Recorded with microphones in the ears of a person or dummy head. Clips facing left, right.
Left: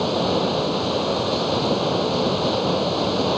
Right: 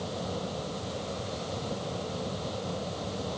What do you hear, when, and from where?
0.0 s running water: 75° left (ahead or behind)